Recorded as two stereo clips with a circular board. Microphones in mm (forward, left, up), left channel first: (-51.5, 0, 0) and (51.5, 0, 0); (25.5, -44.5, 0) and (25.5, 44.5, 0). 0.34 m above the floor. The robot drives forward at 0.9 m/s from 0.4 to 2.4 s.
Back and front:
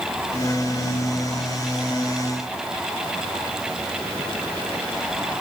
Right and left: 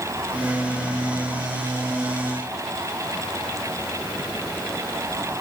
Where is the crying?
I don't hear crying.